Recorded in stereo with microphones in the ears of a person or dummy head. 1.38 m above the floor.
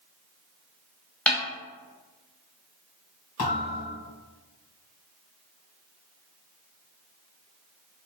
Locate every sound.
1.3 s a snare drum: 5° left (ahead or behind), 0.8 m
3.4 s a thud: 35° left (ahead or behind), 2.0 m